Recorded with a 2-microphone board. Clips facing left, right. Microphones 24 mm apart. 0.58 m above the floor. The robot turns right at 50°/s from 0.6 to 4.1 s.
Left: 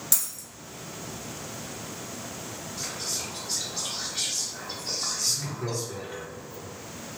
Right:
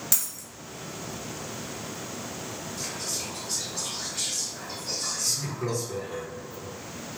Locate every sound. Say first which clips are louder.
0.1 s a dropped coin: left 1 dB; 10° right (ahead or behind), 1.2 m
2.8 s whispering: left 1 dB; 25° left (ahead or behind), 0.7 m
5.2 s laughter: even; 40° right (ahead or behind), 1.7 m